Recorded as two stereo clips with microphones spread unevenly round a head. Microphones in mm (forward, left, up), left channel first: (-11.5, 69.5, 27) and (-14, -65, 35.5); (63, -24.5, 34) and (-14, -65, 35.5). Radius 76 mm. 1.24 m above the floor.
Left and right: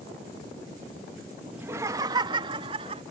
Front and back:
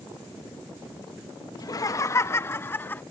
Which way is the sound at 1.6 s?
15° right.